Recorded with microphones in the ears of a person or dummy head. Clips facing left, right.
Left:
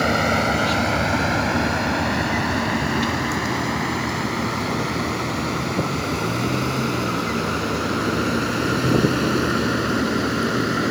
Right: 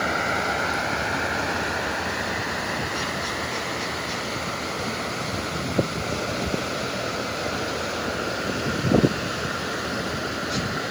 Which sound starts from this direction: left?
A vehicle, at 0.0 s.